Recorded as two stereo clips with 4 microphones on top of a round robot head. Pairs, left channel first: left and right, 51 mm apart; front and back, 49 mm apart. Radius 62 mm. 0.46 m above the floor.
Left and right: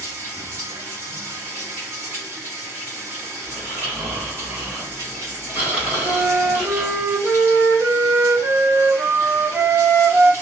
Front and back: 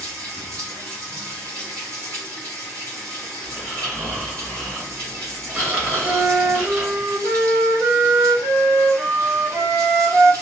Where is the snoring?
135° right, 1.7 m.